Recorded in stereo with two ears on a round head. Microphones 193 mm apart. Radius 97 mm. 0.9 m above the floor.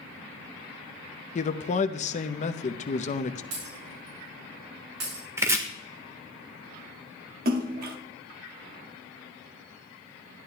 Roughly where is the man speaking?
Left.